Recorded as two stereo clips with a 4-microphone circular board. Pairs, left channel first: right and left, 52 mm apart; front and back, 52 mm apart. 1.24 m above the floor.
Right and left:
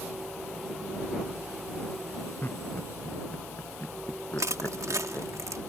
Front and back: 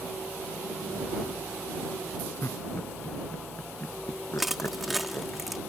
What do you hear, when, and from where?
2.4 s laughter: 40° right
4.4 s crushing: 95° left